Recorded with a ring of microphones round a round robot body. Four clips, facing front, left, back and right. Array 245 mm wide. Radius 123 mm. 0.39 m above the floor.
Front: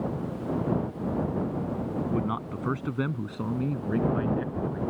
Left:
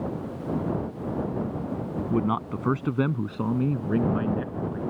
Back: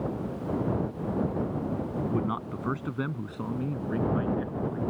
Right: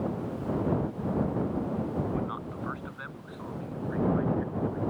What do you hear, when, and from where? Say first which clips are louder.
2.1 s a man speaking: left 7 dB, front 1 dB; 85° left; by 4.8 s 80° left